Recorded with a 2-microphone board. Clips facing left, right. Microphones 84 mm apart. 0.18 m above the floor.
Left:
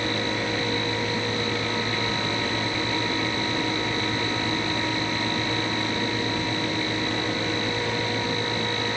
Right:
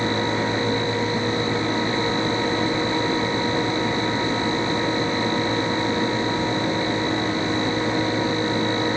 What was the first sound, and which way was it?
Only background noise.